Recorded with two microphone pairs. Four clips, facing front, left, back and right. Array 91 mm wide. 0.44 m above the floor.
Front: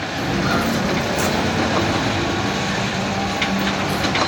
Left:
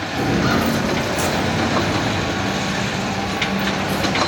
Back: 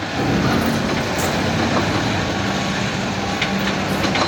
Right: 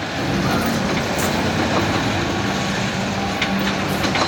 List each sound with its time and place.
0.2 s footsteps: 125° left, 0.5 m; by 4.2 s 15° left, 3 m